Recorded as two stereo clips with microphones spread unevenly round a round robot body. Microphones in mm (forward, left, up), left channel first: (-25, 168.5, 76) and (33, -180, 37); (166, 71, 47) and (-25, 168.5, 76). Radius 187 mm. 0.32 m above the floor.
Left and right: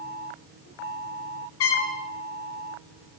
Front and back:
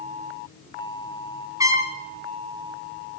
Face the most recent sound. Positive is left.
turn(degrees=75)